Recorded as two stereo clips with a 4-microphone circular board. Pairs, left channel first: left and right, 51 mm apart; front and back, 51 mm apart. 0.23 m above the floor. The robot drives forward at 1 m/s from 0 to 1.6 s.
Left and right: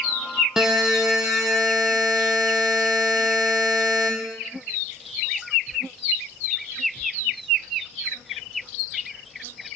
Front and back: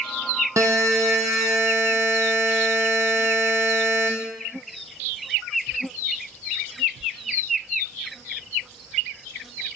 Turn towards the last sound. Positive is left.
turn(degrees=-175)